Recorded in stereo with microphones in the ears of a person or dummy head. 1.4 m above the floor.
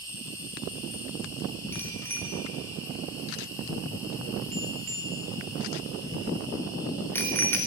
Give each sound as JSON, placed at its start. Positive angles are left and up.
{"t": 0.0, "sound": "an insect", "side_deg": 15, "distance_m": 6.5}
{"t": 1.7, "sound": "a bicycle bell", "side_deg": 10, "distance_m": 2.5}